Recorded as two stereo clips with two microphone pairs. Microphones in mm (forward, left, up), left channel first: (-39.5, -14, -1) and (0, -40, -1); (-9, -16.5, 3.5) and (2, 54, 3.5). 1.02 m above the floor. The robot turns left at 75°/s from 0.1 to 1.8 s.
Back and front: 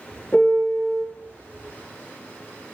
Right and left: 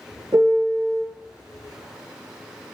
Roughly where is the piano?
Left.